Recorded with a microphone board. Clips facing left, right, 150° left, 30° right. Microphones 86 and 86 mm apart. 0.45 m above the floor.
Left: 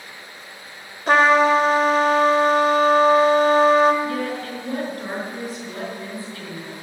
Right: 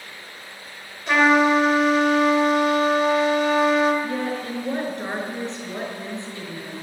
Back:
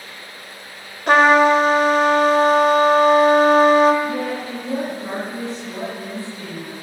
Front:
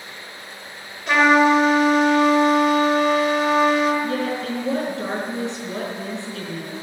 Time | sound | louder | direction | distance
1.1 | a trumpet | left 2 dB, back 3 dB | 125° left | 1.7 m
4.0 | a woman speaking | left 1 dB, even | 25° right | 5.5 m